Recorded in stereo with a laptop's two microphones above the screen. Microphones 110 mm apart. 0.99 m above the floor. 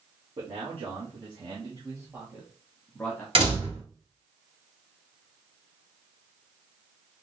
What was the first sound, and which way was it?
A man speaking, 65° right (ahead or behind).